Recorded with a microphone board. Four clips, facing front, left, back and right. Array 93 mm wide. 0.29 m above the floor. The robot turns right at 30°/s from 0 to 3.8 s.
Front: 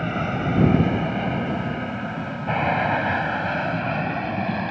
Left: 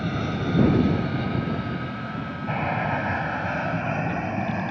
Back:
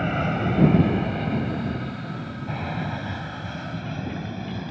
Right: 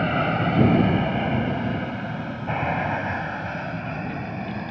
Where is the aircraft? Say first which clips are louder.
Right 5 dB, even; 95° right; by 4.7 s 20° left.